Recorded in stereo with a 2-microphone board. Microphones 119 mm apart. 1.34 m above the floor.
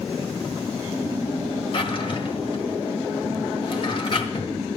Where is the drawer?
50° left (ahead or behind), 1.6 m.